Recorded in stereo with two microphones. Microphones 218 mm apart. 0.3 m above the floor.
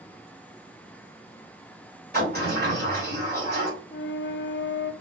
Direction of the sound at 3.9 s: 60° left (ahead or behind).